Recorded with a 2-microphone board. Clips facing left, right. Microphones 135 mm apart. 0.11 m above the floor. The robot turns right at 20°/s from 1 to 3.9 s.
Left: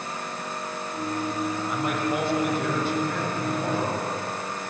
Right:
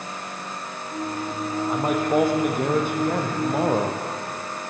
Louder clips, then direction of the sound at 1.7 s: Right 8 dB; 145° right.